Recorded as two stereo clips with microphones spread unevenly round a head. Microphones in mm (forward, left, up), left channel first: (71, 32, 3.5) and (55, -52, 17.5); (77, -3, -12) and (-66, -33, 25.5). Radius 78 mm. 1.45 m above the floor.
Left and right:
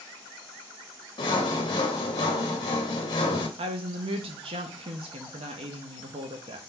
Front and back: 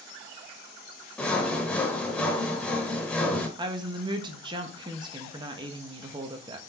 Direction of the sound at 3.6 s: 115° right.